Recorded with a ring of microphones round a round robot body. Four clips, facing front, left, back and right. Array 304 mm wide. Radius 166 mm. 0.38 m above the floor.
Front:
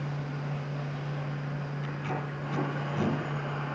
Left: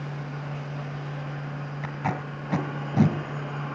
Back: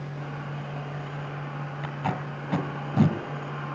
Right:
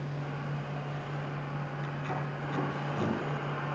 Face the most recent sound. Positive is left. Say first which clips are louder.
# left 8 dB, back 6 dB
turn(degrees=130)